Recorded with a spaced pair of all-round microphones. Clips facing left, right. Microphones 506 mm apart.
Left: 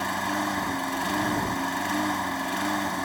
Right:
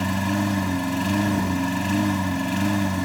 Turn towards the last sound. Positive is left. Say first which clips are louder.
# right 7 dB
turn(degrees=-50)  # may be behind; listen again after turning